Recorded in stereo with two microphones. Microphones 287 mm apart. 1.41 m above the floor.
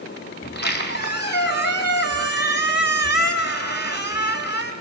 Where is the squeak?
35° left (ahead or behind), 5 m.